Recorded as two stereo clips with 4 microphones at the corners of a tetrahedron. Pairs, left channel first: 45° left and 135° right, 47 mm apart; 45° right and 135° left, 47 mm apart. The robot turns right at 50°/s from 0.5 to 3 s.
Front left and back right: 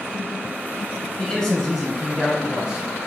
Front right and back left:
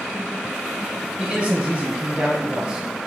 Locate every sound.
1.2 s a man speaking: 105° left, 1.5 m; by 3.1 s 165° right, 1.5 m